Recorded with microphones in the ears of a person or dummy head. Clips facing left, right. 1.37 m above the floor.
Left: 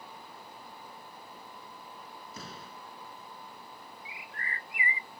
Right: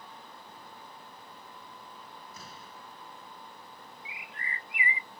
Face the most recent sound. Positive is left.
turn(degrees=-25)  # may be behind; listen again after turning